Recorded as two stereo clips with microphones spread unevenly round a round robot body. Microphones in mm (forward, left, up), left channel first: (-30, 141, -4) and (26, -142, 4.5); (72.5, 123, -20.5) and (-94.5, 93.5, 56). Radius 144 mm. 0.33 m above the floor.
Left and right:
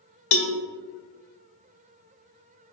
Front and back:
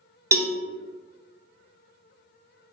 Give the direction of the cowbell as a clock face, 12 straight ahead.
8 o'clock.